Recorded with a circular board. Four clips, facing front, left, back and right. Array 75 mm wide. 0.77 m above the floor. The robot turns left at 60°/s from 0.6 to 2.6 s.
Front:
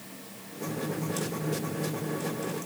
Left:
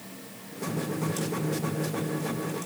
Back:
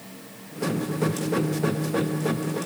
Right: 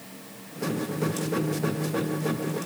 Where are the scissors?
No scissors in this recording.